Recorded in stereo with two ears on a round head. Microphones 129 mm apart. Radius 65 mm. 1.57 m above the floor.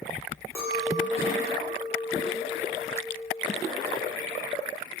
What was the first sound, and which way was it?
A clink, 20° left (ahead or behind).